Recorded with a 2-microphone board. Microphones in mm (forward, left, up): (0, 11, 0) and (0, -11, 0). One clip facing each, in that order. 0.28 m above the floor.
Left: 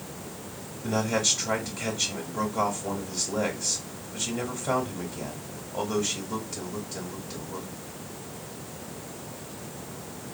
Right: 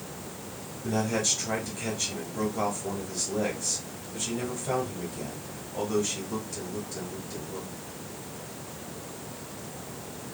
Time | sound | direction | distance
0.8 | a man speaking | 20° left (ahead or behind) | 1.1 m